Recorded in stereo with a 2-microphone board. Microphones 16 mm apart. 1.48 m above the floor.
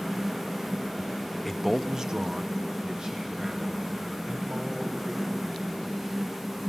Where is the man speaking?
10° left (ahead or behind), 0.8 m; by 6.6 s 85° right, 7 m.